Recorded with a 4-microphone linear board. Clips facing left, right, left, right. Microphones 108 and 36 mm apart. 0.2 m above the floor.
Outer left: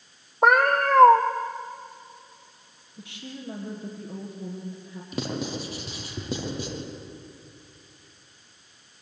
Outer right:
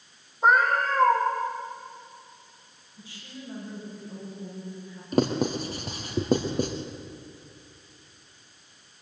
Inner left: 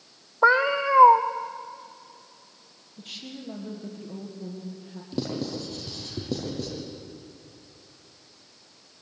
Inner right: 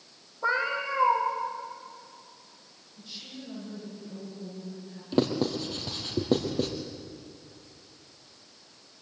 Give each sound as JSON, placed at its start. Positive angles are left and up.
{"t": 0.4, "sound": "a cat meowing", "side_deg": 75, "distance_m": 1.5}
{"t": 3.0, "sound": "a woman speaking", "side_deg": 70, "distance_m": 6.0}
{"t": 5.1, "sound": "writing", "side_deg": -45, "distance_m": 3.5}